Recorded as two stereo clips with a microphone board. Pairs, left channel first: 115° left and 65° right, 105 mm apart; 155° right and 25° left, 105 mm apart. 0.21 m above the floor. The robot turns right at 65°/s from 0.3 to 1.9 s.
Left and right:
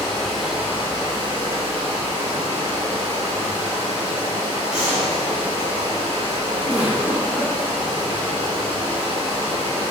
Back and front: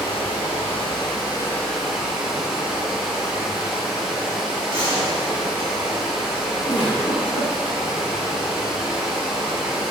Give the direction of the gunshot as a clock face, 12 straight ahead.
5 o'clock.